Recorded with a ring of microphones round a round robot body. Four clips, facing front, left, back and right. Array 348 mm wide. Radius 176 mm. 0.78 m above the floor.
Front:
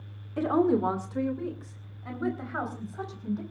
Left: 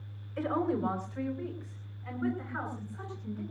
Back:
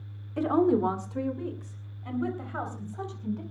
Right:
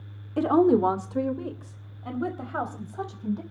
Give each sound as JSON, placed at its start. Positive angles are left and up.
{"t": 0.4, "sound": "a woman speaking", "azimuth_deg": -90, "distance_m": 1.9}